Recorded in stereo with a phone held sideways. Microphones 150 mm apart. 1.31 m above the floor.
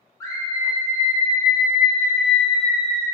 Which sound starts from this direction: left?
A scream, at 0.2 s.